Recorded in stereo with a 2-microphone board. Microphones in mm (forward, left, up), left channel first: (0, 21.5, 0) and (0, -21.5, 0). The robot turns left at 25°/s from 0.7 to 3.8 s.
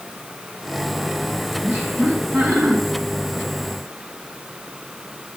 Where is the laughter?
55° right (ahead or behind), 5 m; by 2.8 s 75° right (ahead or behind), 5 m.